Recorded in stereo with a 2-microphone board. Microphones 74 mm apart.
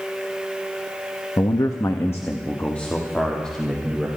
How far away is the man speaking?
About 0.8 m.